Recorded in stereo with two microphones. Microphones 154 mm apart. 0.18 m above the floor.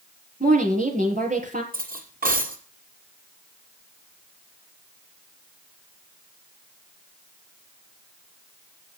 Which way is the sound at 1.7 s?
70° right (ahead or behind).